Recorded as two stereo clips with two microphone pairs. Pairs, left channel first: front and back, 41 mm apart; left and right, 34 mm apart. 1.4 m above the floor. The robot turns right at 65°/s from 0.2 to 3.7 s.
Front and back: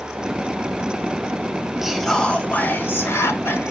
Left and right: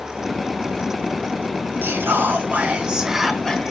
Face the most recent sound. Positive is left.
turn(degrees=25)